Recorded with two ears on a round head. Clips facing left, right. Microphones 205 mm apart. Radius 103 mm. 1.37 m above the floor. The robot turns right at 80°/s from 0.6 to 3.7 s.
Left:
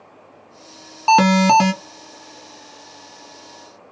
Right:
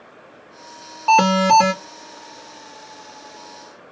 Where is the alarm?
55° left, 0.9 m; by 1.7 s 110° left, 0.9 m.